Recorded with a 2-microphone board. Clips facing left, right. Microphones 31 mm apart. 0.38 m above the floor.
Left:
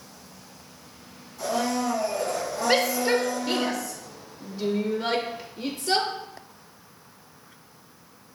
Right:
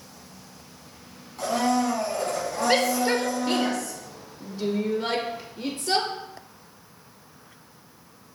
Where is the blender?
55° right (ahead or behind), 4 m.